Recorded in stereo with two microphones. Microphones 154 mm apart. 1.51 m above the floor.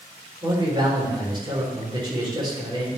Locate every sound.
0.4 s a man speaking: 30° right (ahead or behind), 4 m